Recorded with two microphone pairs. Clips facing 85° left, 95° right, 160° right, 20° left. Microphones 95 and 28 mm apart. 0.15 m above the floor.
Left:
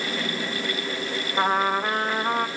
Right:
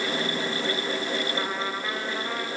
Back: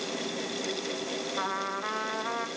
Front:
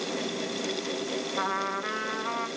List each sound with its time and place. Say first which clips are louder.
1.4 s a trumpet: left 8 dB, front 3 dB; 125° left, 2.5 m